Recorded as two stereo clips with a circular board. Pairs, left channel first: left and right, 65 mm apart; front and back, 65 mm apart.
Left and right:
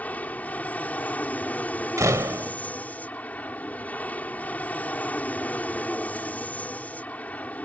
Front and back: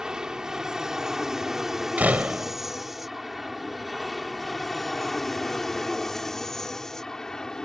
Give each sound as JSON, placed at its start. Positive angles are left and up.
{"t": 0.0, "sound": "an aircraft", "azimuth_deg": 115}
{"t": 2.0, "sound": "a door slam", "azimuth_deg": -115}